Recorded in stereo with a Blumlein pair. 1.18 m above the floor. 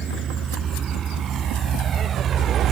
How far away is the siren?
No siren in this recording.